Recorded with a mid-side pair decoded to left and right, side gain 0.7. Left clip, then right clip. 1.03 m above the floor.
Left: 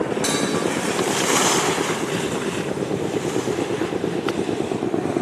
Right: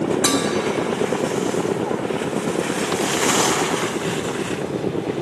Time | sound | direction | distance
0.2 | dishes clattering | 20° right | 2.5 m